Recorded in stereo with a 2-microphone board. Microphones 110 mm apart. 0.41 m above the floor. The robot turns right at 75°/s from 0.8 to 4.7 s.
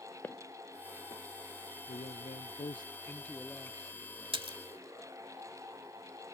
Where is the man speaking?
65° left; by 3.8 s 150° right.